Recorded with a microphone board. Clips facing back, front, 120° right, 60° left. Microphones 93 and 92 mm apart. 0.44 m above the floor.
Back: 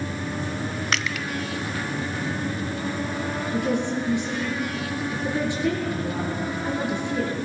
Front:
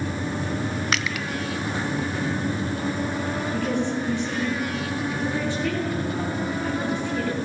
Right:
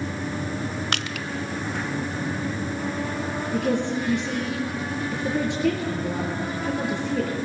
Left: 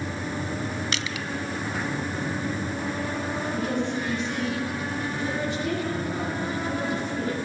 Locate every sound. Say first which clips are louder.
0.9 s crushing: front 1 dB, right 2 dB; 90° right, 0.6 m
3.5 s a woman speaking: back 2 dB, right 5 dB; 105° right, 8.5 m